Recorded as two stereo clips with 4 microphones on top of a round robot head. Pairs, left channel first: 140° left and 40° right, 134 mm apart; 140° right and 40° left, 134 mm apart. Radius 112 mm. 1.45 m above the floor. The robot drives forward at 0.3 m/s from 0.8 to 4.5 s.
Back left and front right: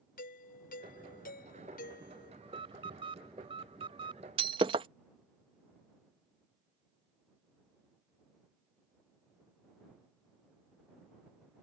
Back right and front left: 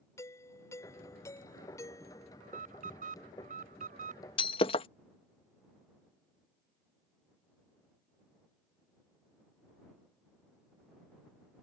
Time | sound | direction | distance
0.2 | a doorbell | 150° left | ?
2.4 | an alarm | 10° left | ?
4.4 | breaking glass | 90° right | ?